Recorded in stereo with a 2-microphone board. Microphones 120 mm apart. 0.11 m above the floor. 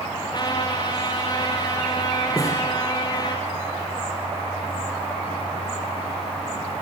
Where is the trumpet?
35° left (ahead or behind), 4.5 m.